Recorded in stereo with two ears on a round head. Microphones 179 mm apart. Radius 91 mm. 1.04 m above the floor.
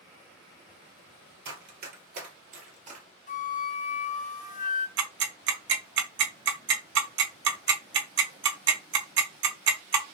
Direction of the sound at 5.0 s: 60° right (ahead or behind).